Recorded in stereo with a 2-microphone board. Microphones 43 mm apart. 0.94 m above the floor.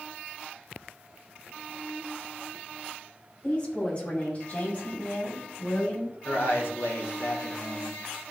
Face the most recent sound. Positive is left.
turn(degrees=60)  # may be behind; listen again after turning